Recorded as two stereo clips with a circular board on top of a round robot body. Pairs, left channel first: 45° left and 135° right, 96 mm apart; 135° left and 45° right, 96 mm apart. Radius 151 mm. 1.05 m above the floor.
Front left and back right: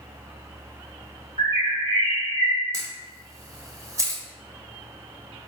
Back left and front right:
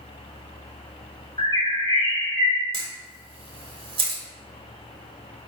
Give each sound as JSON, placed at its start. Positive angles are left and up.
{"t": 1.4, "sound": "a bird", "azimuth_deg": -175, "distance_m": 1.8}
{"t": 2.7, "sound": "a camera shutter", "azimuth_deg": -75, "distance_m": 0.6}